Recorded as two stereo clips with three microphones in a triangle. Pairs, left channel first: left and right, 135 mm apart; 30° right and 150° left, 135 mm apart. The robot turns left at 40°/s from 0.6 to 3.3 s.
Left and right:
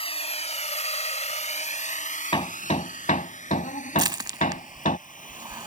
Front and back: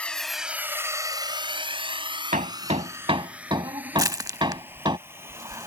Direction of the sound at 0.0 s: 50° left.